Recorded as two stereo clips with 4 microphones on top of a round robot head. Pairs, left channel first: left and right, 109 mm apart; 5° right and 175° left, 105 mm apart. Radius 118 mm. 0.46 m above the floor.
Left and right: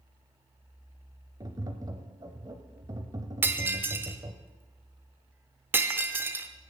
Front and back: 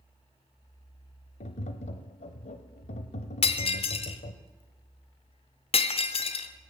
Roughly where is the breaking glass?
Ahead.